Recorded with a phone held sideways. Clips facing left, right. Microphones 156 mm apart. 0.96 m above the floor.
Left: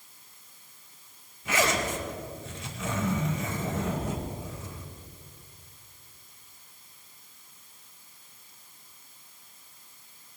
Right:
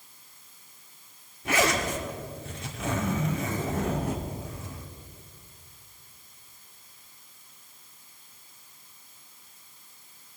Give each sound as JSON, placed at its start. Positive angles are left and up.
{"t": 1.4, "sound": "a zipper", "side_deg": -65, "distance_m": 1.8}